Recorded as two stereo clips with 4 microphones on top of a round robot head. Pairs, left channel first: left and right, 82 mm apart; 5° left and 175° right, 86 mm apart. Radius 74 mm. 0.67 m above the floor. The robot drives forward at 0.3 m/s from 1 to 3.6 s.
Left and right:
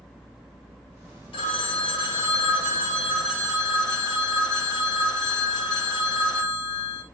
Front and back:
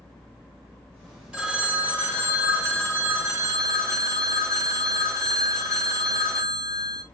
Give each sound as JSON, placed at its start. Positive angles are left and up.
{"t": 1.3, "sound": "a phone ringing", "azimuth_deg": 100, "distance_m": 1.2}